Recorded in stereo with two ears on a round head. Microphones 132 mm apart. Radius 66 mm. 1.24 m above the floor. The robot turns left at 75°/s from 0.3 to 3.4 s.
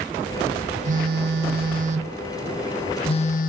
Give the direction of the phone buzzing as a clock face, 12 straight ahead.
2 o'clock.